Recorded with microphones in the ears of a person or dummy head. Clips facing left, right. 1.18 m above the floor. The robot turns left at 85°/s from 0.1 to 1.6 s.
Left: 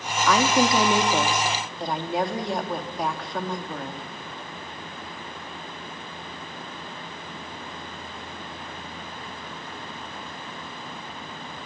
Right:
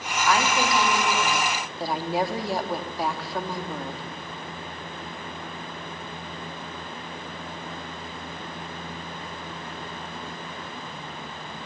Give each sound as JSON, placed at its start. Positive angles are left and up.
{"t": 0.3, "sound": "a woman speaking", "azimuth_deg": 110, "distance_m": 2.5}